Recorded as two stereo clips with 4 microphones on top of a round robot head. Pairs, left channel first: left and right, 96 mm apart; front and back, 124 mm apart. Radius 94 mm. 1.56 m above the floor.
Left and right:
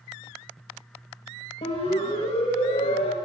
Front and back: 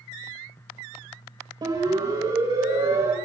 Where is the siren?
125° left, 8 m; by 3.1 s 115° left, 7.5 m.